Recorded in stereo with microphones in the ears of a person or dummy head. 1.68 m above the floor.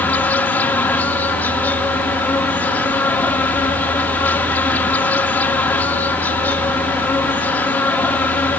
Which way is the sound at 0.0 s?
10° left (ahead or behind).